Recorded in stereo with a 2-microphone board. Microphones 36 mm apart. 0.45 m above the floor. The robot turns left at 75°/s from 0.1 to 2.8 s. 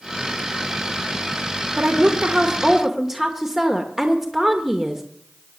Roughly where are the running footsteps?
I don't hear running footsteps.